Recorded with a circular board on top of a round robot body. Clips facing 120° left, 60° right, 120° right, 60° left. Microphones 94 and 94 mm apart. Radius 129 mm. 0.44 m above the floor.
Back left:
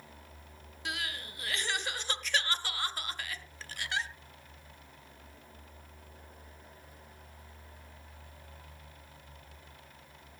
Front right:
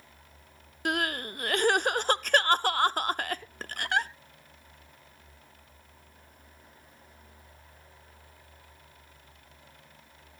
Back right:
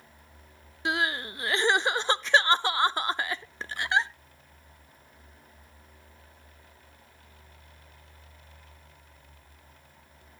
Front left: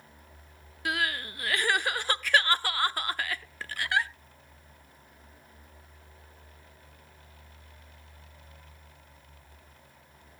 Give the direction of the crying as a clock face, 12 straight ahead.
2 o'clock.